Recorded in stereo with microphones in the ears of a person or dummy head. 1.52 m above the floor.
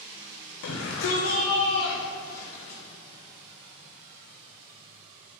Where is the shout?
80° left, 1.1 m; by 2.8 s 15° left (ahead or behind), 2.5 m.